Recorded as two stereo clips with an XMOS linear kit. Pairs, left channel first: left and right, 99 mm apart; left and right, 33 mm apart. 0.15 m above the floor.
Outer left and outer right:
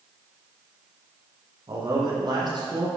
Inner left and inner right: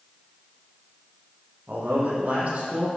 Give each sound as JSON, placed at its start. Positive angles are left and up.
{"t": 1.7, "sound": "a man speaking", "side_deg": -50, "distance_m": 5.0}